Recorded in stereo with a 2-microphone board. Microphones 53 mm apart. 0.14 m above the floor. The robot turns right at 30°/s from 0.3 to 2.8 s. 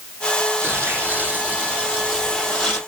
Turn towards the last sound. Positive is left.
turn(degrees=15)